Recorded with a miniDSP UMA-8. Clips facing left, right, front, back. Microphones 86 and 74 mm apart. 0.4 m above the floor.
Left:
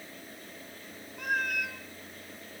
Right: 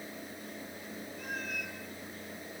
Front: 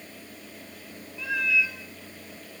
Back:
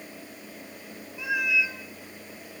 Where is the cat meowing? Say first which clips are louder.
Left 10 dB, even; 105° left, 1.3 m.